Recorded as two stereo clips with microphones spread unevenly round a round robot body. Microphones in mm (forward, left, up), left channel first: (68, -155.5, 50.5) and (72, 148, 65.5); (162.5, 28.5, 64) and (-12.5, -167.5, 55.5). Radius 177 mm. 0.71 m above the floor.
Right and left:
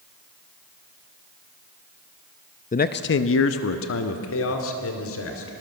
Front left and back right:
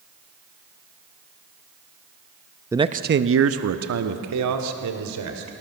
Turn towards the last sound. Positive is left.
turn(degrees=-140)